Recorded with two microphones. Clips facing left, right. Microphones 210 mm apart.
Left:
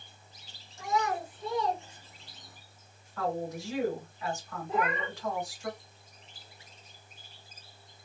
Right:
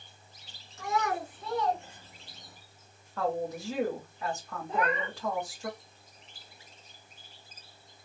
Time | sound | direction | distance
0.8 | a child speaking | 75° right (ahead or behind) | 2.0 m
3.2 | a woman speaking | 35° right (ahead or behind) | 1.5 m
4.7 | a cat meowing | 5° left (ahead or behind) | 0.5 m